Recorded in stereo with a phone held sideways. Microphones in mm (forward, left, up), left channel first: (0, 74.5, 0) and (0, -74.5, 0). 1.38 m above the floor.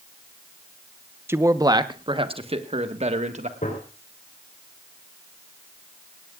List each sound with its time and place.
1.3 s a man speaking: 15° right (ahead or behind), 0.9 m; by 3.5 s 50° right (ahead or behind), 1.8 m
3.6 s a gunshot: 60° left (ahead or behind), 4.5 m